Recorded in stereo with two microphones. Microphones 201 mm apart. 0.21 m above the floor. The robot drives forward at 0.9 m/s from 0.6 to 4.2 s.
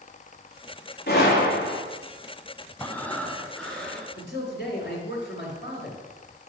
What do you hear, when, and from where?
1.1 s a gunshot: 50° left (ahead or behind), 3 m; by 1.8 s 60° left (ahead or behind), 2.5 m
2.8 s breathing: 10° left (ahead or behind), 0.7 m; by 4.1 s 5° left (ahead or behind), 1.7 m
4.2 s a man speaking: 55° left (ahead or behind), 2.5 m